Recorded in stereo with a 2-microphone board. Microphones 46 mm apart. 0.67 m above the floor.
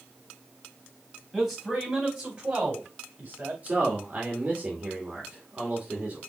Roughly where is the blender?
No blender in this recording.